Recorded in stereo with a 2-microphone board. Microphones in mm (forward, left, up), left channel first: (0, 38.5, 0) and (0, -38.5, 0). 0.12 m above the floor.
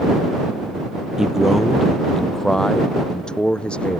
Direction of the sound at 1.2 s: 5° right (ahead or behind).